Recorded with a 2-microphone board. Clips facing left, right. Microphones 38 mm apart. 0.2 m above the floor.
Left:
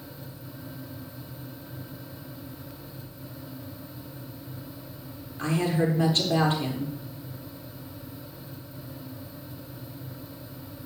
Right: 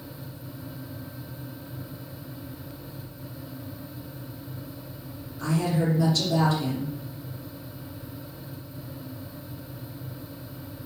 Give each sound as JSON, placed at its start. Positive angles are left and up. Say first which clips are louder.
{"t": 5.4, "sound": "a woman speaking", "louder": "even", "side_deg": 40, "distance_m": 4.0}